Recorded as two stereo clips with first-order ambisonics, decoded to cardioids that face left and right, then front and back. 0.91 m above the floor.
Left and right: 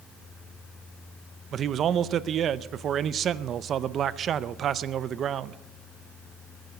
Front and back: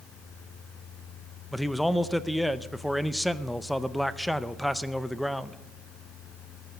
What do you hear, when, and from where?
1.5 s a man speaking: 85° right, 0.5 m